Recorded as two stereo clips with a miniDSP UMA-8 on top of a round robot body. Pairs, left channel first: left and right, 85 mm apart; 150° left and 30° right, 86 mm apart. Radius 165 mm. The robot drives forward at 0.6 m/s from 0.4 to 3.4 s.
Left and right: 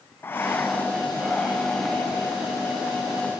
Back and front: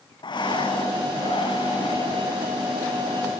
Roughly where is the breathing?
Behind left.